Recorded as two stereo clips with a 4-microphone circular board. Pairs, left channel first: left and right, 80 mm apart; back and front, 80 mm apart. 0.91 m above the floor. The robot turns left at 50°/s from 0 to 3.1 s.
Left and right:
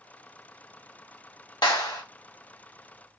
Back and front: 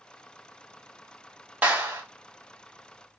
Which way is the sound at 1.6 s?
70° left.